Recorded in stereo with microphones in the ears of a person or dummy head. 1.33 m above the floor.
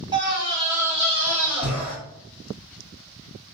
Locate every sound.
0.1 s a scream: 20° right (ahead or behind), 1.3 m; by 1.9 s 5° right (ahead or behind), 2.5 m